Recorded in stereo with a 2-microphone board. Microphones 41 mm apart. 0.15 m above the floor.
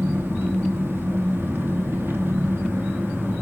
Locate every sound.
0.0 s an engine running: 70° right (ahead or behind), 2.5 m